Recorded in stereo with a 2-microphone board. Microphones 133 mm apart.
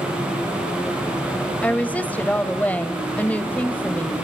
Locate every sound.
1.6 s a woman speaking: 10° left (ahead or behind), 1.4 m